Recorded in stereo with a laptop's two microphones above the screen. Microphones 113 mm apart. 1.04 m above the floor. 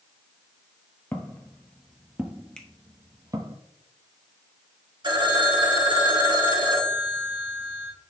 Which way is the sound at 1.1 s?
20° left (ahead or behind).